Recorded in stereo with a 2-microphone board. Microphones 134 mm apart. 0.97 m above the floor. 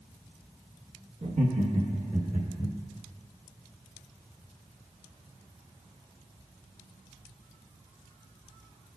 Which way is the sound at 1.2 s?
55° right (ahead or behind).